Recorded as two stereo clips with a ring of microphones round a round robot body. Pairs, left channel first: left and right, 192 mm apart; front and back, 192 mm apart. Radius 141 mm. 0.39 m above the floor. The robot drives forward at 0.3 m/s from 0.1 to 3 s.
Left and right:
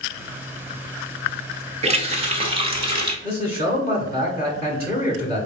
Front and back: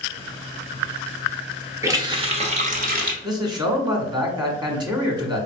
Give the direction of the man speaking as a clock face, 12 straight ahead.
8 o'clock.